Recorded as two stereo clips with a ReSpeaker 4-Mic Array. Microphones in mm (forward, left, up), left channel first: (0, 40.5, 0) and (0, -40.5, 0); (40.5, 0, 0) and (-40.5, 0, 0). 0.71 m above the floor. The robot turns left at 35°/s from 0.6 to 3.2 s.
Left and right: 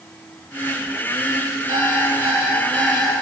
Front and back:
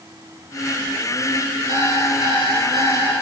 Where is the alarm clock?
145° right, 6.5 m; by 3.2 s 165° left, 6.5 m.